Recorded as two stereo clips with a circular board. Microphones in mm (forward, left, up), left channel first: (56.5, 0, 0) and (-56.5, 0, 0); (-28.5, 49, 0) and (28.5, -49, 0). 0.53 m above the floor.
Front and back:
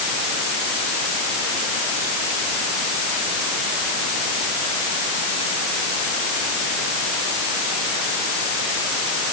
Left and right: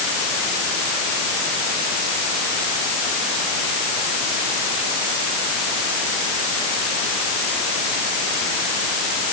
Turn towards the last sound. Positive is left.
No sound to turn to.